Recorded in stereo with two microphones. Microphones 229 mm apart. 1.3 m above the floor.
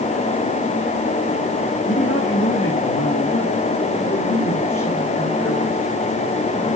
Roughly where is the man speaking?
Left.